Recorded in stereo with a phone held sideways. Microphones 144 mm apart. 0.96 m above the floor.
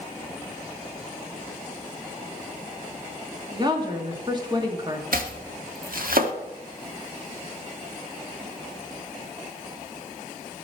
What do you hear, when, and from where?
3.5 s a woman speaking: 30° right (ahead or behind), 2 m
5.1 s chopping: 85° right, 1.2 m